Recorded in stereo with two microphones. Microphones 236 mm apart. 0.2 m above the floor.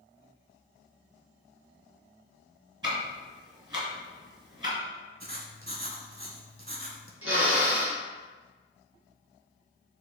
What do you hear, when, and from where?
2.8 s ticking: 20° right (ahead or behind), 1.7 m
5.2 s writing: 40° right (ahead or behind), 0.7 m
7.2 s a drill: 70° right (ahead or behind), 1.4 m